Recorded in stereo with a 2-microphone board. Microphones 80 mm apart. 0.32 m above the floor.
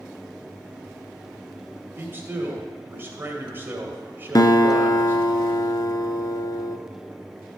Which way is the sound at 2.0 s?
25° right (ahead or behind).